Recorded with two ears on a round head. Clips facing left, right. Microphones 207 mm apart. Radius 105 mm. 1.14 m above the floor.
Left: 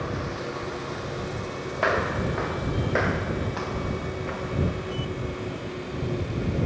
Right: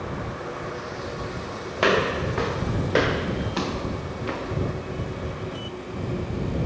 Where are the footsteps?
45° right (ahead or behind); by 4.6 s 50° right (ahead or behind).